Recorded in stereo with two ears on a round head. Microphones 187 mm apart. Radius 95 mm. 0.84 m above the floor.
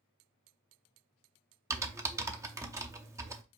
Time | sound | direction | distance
1.7 | typing on a keyboard | 15° right (ahead or behind) | 0.5 m